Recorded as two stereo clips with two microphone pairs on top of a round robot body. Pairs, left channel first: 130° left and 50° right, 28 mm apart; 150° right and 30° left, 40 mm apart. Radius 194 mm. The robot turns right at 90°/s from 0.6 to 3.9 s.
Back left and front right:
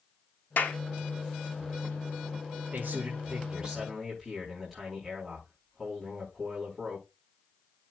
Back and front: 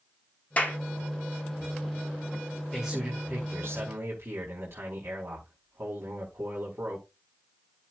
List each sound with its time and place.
0.6 s a clap: 155° left, 1.8 m; by 0.8 s 170° left, 1.8 m
2.7 s a man speaking: 65° right, 4.5 m; by 7.1 s 40° left, 4.5 m